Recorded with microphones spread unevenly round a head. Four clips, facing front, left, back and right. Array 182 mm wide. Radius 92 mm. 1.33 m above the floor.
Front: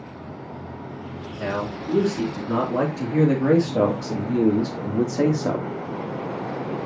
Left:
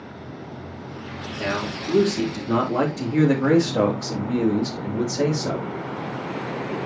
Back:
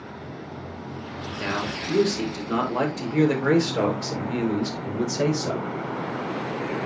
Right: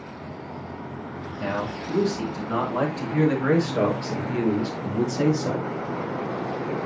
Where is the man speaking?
65° left, 3.5 m; by 5.7 s straight ahead, 3 m.